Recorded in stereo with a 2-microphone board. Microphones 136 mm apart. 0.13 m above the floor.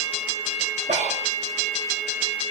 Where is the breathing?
65° right (ahead or behind), 5 m.